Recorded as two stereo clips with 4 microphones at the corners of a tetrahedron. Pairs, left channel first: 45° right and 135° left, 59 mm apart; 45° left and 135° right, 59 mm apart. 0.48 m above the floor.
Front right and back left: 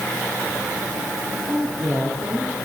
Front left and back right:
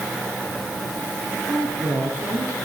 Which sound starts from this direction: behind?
A woman speaking, at 1.4 s.